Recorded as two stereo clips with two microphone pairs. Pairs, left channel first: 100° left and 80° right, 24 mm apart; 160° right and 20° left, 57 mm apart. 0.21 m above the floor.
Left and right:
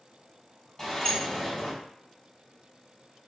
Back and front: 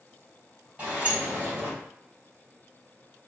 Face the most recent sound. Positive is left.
turn(degrees=35)